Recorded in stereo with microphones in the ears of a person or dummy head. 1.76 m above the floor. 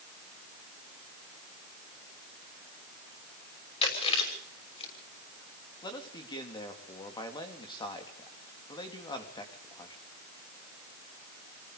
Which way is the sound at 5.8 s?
25° left (ahead or behind).